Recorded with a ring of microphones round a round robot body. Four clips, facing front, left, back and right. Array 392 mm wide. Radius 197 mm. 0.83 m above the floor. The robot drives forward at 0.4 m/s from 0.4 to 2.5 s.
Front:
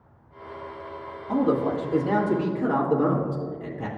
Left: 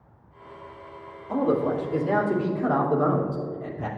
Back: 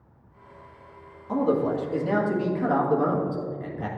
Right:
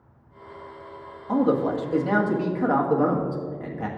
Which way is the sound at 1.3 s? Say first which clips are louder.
Right 2 dB, front 1 dB; 80° right.